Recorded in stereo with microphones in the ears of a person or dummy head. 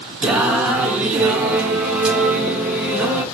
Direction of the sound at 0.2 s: Centre (ahead or behind).